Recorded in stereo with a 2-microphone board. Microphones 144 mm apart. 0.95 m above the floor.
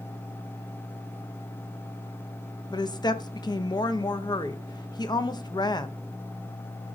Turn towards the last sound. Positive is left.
turn(degrees=30)  # may be behind; listen again after turning